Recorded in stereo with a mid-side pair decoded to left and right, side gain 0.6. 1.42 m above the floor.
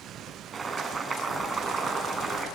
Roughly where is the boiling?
Ahead right.